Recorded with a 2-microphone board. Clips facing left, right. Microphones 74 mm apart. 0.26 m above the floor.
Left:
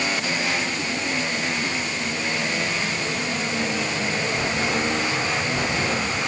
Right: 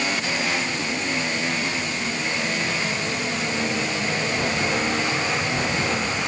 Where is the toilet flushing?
No toilet flushing in this recording.